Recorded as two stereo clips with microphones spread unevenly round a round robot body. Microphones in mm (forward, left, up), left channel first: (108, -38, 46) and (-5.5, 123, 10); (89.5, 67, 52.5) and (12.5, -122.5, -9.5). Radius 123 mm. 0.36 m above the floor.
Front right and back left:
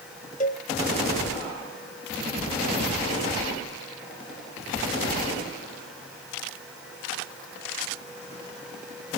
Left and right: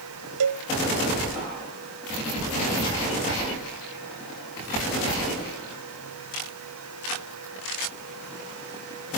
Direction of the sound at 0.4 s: 115° right.